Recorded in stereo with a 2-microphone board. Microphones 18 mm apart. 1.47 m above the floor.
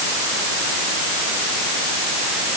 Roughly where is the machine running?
I don't hear a machine running.